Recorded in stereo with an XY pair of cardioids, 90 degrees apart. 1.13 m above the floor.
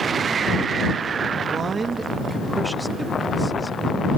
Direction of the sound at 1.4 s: 60° right.